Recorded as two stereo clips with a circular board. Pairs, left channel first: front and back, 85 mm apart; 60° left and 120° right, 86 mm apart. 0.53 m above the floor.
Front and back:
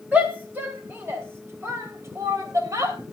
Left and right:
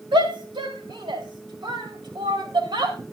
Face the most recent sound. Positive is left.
turn(degrees=-140)